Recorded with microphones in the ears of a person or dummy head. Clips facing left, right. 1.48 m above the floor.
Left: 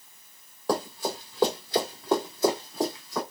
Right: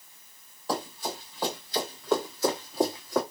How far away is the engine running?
No engine running in this recording.